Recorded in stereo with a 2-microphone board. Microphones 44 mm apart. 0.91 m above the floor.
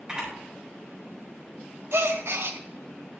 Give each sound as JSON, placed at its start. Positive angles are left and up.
{"t": 0.1, "sound": "a camera shutter", "side_deg": -20, "distance_m": 6.5}
{"t": 1.9, "sound": "a gasp", "side_deg": -75, "distance_m": 1.0}